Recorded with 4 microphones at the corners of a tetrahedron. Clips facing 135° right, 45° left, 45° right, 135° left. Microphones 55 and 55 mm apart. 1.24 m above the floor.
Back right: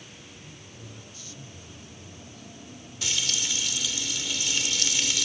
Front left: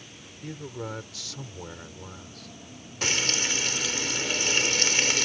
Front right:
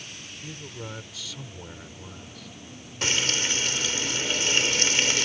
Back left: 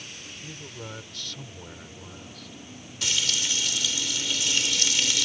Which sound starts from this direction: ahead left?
A man speaking, at 0.4 s.